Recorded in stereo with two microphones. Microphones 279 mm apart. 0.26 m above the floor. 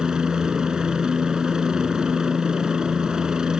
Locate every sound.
0.0 s a helicopter: 5° right (ahead or behind)